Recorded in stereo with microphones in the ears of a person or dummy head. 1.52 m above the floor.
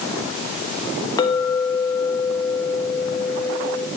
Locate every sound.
1.2 s a clink: 20° left (ahead or behind), 1.1 m